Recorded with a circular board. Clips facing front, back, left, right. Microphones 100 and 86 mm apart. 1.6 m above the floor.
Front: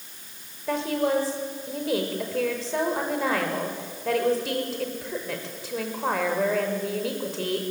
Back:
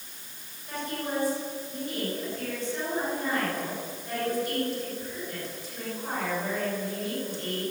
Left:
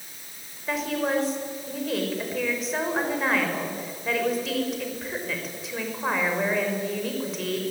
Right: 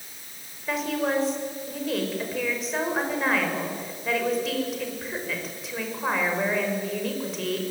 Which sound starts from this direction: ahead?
A woman speaking, at 0.7 s.